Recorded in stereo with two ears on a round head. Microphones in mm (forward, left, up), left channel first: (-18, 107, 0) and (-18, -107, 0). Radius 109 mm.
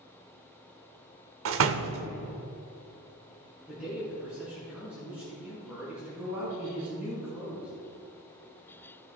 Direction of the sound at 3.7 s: 5° right (ahead or behind).